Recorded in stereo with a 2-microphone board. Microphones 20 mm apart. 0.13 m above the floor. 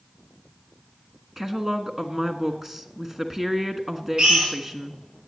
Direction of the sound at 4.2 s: 75° right (ahead or behind).